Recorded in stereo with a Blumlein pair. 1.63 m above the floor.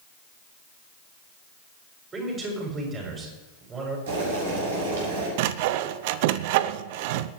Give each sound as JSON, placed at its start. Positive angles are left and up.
{"t": 2.1, "sound": "a man speaking", "azimuth_deg": -20, "distance_m": 6.5}
{"t": 4.1, "sound": "boiling", "azimuth_deg": -60, "distance_m": 6.5}
{"t": 5.4, "sound": "sawing", "azimuth_deg": -50, "distance_m": 0.7}